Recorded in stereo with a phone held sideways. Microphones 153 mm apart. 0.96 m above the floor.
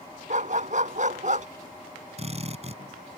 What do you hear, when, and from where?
0.3 s a dog barking: 55° right (ahead or behind)
2.2 s a drill: 45° right (ahead or behind)